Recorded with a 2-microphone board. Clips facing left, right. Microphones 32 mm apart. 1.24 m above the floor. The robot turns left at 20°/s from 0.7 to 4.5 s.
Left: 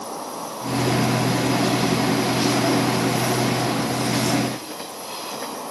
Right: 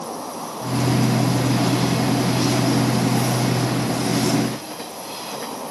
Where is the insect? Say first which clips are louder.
Right 1 dB; 115° left, 8 m; by 5.7 s 35° left, 8 m.